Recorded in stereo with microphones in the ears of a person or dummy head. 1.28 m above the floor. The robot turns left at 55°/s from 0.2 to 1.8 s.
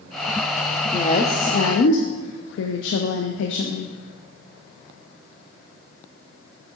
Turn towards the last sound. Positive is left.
turn(degrees=115)